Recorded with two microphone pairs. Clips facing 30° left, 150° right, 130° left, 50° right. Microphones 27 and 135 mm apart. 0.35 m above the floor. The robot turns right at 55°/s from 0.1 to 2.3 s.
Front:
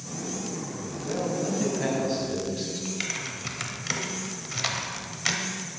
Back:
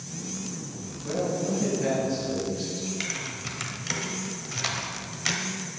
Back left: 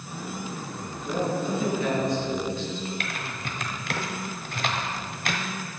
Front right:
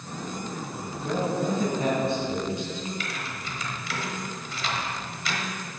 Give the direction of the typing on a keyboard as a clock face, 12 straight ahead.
8 o'clock.